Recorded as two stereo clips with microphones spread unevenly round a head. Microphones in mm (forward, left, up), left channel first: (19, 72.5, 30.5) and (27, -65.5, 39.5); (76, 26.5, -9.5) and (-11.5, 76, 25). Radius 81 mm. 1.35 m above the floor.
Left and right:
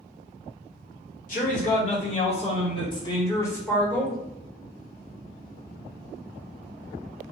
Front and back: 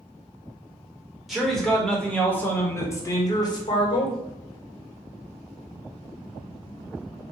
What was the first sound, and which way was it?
A man speaking, 65° left.